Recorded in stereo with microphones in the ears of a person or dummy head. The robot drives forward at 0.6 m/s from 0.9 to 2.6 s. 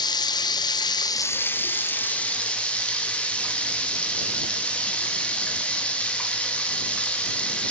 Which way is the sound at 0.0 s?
20° left (ahead or behind).